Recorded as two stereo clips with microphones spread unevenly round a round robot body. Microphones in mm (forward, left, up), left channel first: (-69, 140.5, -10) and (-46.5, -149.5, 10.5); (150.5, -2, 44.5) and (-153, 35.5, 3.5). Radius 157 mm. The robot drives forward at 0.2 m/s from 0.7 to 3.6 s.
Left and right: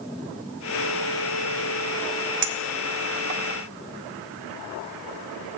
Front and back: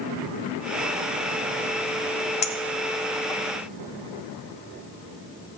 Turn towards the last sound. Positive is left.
turn(degrees=-115)